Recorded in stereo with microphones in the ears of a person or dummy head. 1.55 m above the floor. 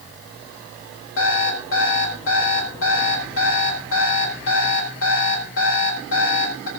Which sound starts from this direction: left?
An alarm clock, at 1.2 s.